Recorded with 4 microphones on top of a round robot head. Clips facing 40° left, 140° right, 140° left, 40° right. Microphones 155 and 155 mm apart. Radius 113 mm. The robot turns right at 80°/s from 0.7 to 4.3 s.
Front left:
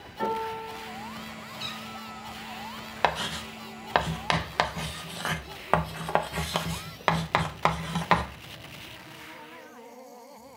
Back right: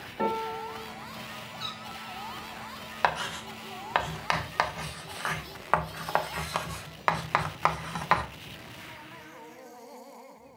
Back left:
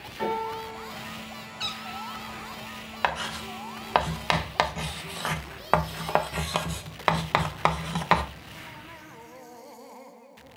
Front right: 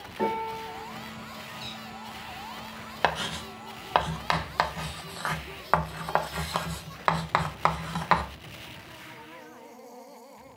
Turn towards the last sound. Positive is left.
turn(degrees=85)